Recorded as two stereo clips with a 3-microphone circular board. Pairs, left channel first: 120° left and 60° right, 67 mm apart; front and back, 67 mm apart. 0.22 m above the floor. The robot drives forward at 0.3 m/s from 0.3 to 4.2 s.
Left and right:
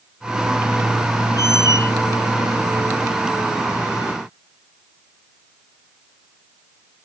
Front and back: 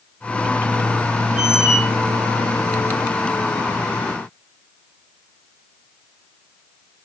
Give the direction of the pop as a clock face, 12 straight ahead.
I don't hear a pop.